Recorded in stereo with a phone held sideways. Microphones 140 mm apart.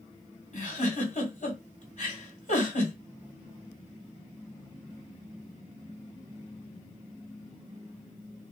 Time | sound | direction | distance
0.5 | a giggle | 55° left (ahead or behind) | 2 m